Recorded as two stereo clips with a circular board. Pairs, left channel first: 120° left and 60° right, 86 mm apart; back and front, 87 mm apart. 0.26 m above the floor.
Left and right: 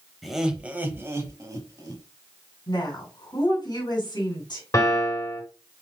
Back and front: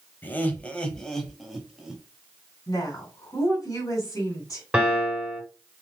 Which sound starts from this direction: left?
A piano, at 4.7 s.